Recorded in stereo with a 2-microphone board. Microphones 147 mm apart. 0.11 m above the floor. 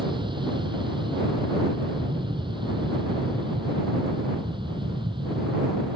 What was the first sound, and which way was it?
An aircraft, 35° right (ahead or behind).